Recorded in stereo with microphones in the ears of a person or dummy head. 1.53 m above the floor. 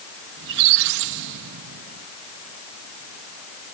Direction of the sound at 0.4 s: 60° right (ahead or behind).